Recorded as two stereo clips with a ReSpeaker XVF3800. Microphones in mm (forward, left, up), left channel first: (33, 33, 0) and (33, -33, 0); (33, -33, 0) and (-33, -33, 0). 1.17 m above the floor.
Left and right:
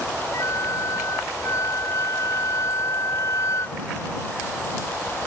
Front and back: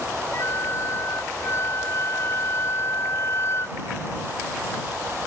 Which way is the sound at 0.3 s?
50° left.